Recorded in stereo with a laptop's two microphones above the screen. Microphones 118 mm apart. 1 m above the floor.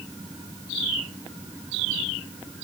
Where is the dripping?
No dripping in this recording.